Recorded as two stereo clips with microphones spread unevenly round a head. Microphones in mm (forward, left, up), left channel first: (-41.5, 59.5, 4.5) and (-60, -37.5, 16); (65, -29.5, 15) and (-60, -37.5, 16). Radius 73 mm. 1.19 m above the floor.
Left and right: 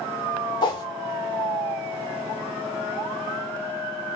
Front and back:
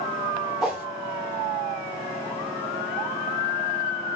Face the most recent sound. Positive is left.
turn(degrees=100)